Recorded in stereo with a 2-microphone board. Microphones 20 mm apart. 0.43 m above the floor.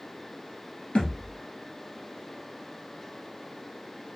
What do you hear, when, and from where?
0.9 s a thud: 75° left (ahead or behind), 1.6 m